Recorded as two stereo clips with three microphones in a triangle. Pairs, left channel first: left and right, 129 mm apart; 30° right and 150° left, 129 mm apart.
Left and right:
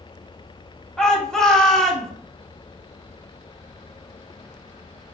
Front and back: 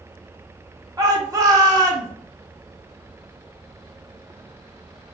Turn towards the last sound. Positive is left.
turn(degrees=170)